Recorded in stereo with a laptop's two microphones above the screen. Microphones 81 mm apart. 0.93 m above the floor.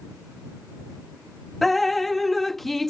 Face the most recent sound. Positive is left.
turn(degrees=5)  # may be behind; listen again after turning